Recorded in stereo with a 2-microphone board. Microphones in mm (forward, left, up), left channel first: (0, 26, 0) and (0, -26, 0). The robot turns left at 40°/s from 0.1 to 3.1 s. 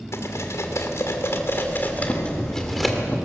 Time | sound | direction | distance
0.1 | cutlery clinking | 70° left (ahead or behind) | 2.5 m
1.9 | boiling | 90° left | 3 m